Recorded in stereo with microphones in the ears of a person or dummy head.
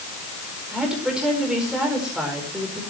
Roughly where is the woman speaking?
Centre.